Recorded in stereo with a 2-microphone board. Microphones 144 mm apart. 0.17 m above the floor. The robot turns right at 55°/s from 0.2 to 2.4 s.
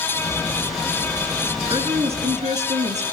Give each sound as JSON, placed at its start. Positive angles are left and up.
{"t": 1.7, "sound": "a woman speaking", "azimuth_deg": -145, "distance_m": 2.0}